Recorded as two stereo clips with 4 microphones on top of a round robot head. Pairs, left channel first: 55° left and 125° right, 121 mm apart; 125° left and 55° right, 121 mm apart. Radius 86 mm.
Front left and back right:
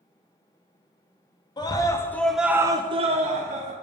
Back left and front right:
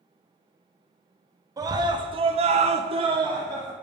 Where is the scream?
5° left, 0.8 m; by 3.7 s 120° right, 0.8 m.